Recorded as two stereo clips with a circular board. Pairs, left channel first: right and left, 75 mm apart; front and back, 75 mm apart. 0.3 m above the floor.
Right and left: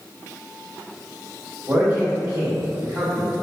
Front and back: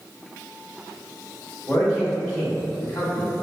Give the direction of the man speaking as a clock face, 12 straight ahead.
10 o'clock.